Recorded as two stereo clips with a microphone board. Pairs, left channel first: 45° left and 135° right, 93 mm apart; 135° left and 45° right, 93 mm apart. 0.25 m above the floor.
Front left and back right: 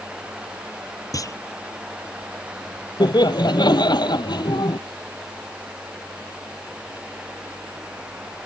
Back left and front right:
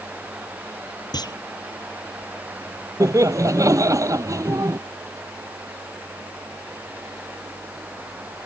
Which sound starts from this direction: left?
A clunk, at 1.1 s.